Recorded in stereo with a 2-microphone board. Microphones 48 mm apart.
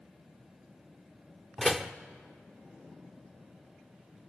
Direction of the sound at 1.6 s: 5° left (ahead or behind).